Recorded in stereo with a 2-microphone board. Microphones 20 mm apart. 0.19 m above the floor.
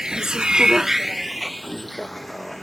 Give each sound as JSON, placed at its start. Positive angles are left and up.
{"t": 0.0, "sound": "a vehicle", "side_deg": -35}